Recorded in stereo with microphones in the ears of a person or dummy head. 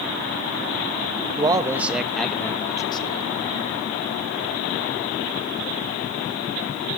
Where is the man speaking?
20° right (ahead or behind), 1.2 m; by 3.3 s 30° left (ahead or behind), 1.4 m.